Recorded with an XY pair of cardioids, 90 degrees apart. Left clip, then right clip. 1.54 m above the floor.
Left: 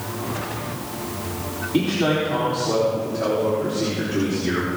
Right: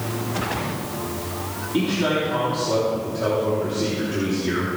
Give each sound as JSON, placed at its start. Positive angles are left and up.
{"t": 1.7, "sound": "a man speaking", "azimuth_deg": 50, "distance_m": 4.5}